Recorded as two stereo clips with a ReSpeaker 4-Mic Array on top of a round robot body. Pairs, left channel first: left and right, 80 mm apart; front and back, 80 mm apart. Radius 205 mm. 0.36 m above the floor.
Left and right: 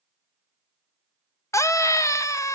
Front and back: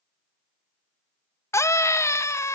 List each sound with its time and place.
1.5 s a scream: 50° left, 1.3 m